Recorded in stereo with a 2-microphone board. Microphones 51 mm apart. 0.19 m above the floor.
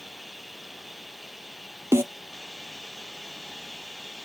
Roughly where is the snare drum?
Right.